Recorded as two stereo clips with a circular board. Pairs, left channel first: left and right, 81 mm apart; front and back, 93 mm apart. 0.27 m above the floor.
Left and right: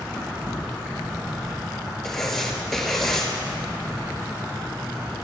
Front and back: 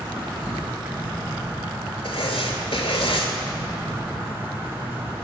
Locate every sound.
0.0 s an insect: 130° right, 1.3 m
2.0 s writing: 5° left, 0.9 m